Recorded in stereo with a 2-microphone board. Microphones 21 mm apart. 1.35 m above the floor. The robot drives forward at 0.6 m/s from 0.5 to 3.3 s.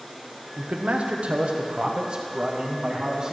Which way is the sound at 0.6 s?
70° right (ahead or behind).